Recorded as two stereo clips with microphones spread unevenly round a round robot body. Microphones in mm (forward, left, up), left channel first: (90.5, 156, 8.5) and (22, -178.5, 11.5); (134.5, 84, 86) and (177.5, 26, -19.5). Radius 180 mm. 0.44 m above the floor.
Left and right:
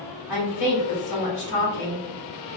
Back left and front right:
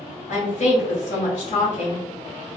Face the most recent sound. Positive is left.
turn(degrees=95)